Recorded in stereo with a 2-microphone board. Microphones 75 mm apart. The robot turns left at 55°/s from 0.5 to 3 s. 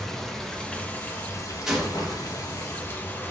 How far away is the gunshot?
About 1.1 m.